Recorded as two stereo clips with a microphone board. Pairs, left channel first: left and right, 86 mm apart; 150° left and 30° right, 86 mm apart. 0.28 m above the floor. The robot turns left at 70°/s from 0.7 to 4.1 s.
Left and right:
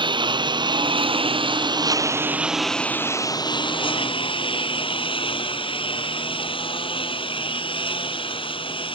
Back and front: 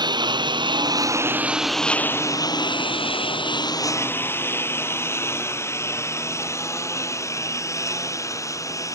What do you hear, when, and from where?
0.0 s a lawn mower: 65° right; by 9.0 s 95° left